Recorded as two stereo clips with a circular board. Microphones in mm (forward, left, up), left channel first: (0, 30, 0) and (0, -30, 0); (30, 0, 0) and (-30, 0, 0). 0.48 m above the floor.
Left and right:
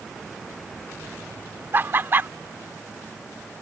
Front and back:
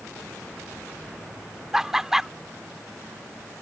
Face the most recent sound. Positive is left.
turn(degrees=-100)